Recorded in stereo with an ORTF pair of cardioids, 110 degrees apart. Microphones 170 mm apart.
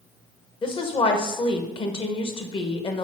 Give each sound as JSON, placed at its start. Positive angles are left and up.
{"t": 0.6, "sound": "a woman speaking", "azimuth_deg": 30, "distance_m": 1.1}